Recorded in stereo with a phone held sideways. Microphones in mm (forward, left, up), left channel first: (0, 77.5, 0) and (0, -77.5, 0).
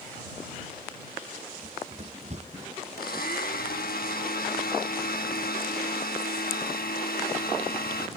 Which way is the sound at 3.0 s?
75° left (ahead or behind).